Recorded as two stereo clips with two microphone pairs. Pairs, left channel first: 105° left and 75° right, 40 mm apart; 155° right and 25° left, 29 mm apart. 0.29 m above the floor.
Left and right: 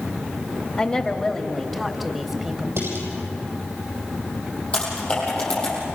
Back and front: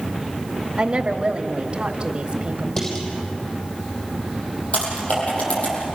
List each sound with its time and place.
0.8 s a woman speaking: 65° left, 1.6 m; by 2.7 s 10° right, 1.7 m
2.8 s dishes clattering: 90° right, 7 m
4.7 s typing on a keyboard: 170° left, 7.5 m